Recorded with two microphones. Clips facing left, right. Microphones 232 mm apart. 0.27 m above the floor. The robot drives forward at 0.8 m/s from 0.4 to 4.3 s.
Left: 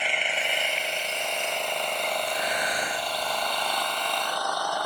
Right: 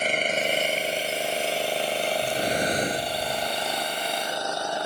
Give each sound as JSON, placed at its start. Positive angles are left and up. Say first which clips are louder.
{"t": 0.0, "sound": "an engine running", "louder": "right 6 dB", "side_deg": -45}
{"t": 2.2, "sound": "breathing", "louder": "right 5 dB", "side_deg": -55}